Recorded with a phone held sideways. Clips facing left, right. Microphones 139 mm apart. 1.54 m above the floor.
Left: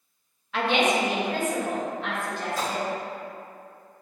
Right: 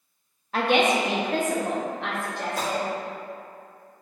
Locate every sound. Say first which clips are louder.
0.5 s a woman speaking: right 2 dB; 40° right (ahead or behind), 0.5 m; by 2.9 s 80° right, 1.9 m
2.6 s a gunshot: right 3 dB; 60° right (ahead or behind), 1.5 m